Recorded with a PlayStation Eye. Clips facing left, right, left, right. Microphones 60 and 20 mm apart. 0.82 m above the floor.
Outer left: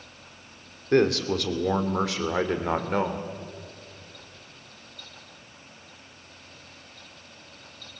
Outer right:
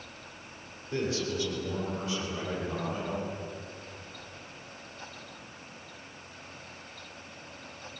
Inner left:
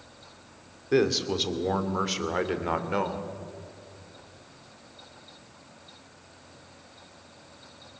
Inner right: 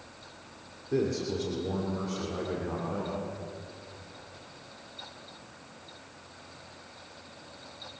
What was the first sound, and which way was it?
A man speaking, 65° left (ahead or behind).